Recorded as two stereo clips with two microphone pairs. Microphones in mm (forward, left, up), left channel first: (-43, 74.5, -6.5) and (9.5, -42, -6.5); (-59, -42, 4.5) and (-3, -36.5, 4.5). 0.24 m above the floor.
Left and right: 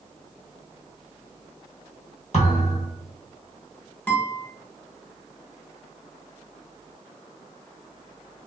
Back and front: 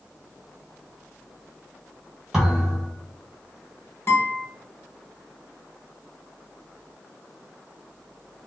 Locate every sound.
2.3 s a thud: 85° left, 1.5 m
4.1 s a guitar: 175° right, 0.7 m